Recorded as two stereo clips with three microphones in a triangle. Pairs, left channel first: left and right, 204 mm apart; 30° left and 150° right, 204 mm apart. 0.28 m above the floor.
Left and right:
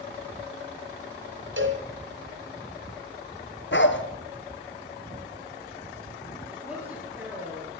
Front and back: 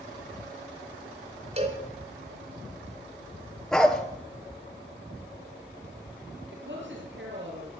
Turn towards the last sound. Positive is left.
turn(degrees=-170)